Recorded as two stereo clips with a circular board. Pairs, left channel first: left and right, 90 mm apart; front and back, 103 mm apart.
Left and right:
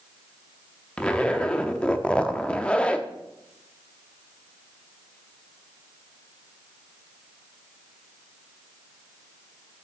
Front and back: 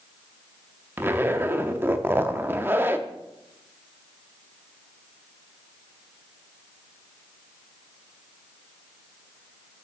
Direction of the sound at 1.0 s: 150° left.